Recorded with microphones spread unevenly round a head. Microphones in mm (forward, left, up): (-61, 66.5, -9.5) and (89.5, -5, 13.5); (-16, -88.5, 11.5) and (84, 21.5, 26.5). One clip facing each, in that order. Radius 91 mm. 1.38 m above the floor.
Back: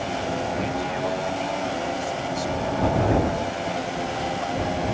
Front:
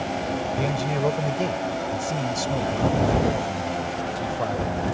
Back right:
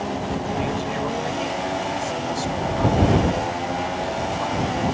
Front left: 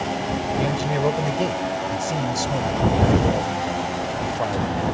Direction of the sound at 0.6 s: 5° left.